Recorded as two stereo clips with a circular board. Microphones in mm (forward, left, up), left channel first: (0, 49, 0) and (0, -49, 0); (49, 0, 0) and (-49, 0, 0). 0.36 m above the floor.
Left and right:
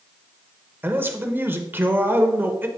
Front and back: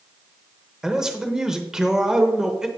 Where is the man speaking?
105° right, 0.8 m.